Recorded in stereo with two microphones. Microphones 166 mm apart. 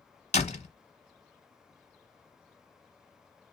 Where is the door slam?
45° left (ahead or behind), 0.8 m.